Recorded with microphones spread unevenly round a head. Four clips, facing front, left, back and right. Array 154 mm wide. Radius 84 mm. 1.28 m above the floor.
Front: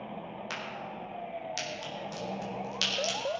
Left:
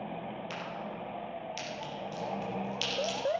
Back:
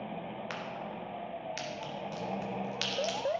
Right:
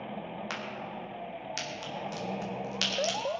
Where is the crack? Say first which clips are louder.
Right 1 dB, even; 105° right, 2.5 m.